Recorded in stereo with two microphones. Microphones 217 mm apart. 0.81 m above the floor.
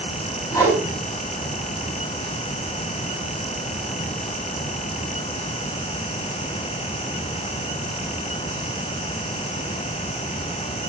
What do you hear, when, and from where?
0.5 s a whoosh: 20° left (ahead or behind), 7 m